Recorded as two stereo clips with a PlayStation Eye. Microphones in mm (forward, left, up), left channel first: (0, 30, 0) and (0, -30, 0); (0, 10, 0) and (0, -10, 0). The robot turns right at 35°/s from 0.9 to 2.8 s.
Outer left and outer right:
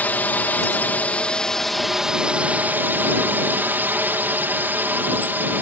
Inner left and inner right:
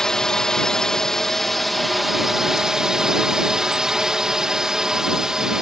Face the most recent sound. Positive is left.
turn(degrees=-145)